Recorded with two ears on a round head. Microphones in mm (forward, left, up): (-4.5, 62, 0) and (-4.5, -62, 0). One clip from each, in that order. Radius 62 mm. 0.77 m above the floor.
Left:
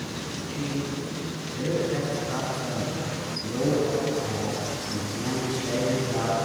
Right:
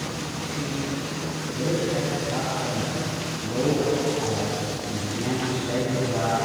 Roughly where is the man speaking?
Left.